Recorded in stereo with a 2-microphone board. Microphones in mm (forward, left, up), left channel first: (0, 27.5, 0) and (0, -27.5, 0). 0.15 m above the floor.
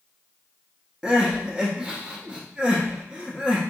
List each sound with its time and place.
1.0 s crying: 15° right (ahead or behind), 0.9 m